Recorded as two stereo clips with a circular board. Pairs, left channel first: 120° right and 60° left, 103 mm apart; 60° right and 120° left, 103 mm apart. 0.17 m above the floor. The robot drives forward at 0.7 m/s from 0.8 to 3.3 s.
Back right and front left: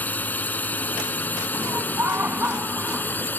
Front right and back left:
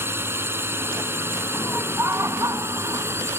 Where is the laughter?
65° left; by 3.3 s 145° left.